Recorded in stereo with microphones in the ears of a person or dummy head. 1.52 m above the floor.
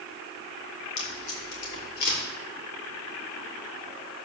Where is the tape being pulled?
55° left (ahead or behind), 5.5 m.